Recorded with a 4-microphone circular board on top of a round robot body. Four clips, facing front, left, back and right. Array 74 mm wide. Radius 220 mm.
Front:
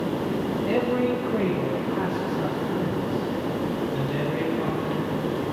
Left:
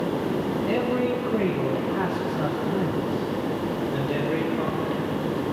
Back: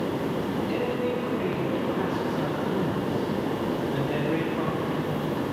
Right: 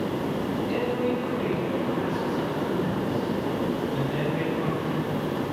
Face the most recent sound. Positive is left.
turn(degrees=145)